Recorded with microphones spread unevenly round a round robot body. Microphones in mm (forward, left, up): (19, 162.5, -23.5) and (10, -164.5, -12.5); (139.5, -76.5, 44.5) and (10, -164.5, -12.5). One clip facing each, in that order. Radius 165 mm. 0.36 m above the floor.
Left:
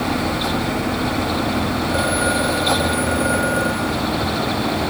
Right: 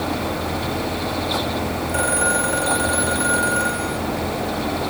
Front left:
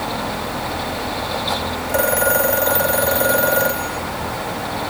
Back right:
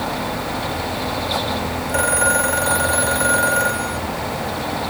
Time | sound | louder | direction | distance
1.9 | a phone ringing | left 3 dB, front left 4 dB | 20° right | ?